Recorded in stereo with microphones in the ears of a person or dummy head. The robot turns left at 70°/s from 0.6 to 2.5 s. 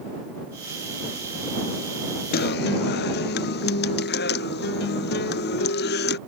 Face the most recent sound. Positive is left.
turn(degrees=45)  # may be behind; listen again after turning